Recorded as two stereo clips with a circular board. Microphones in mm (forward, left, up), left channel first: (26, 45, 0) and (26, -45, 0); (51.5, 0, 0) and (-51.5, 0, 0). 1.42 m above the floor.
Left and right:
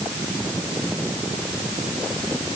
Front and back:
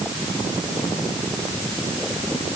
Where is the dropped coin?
I don't hear a dropped coin.